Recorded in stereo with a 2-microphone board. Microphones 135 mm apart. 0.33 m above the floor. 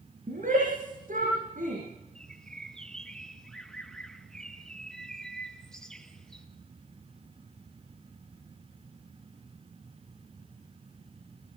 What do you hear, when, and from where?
0.3 s a shout: 75° right (ahead or behind), 7 m
2.1 s a bird: 5° left (ahead or behind), 1.6 m